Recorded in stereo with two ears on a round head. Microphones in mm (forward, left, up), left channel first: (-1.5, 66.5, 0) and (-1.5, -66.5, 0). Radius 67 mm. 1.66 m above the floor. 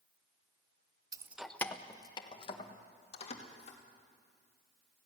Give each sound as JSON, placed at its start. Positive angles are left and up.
{"t": 1.1, "sound": "keys jangling", "side_deg": -25, "distance_m": 0.6}